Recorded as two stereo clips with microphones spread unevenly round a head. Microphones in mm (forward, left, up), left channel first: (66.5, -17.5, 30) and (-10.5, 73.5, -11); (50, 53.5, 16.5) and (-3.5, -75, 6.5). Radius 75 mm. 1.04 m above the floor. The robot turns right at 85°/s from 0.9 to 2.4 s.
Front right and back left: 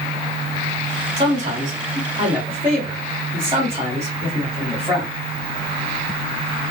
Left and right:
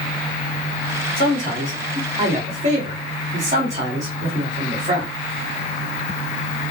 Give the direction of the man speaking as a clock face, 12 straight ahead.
9 o'clock.